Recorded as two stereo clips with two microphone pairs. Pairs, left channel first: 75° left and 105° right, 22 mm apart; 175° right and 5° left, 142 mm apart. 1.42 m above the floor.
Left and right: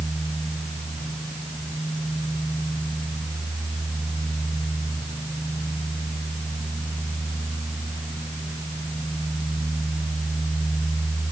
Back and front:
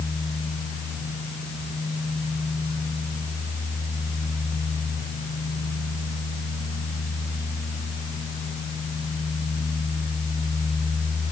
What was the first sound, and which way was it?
Only background noise.